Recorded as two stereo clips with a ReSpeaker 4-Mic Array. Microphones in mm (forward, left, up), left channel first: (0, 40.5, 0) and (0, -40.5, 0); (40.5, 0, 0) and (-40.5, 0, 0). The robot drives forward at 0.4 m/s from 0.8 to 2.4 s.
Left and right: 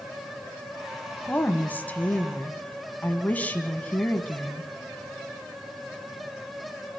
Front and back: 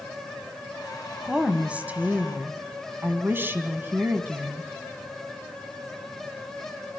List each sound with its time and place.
1.2 s a woman speaking: 115° left, 1.4 m; by 4.7 s 145° left, 1.5 m